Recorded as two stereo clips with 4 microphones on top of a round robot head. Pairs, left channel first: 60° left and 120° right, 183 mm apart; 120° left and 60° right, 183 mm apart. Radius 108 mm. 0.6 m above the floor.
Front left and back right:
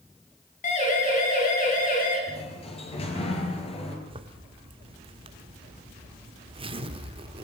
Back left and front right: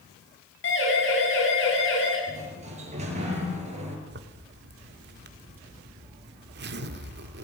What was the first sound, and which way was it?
A siren, 105° left.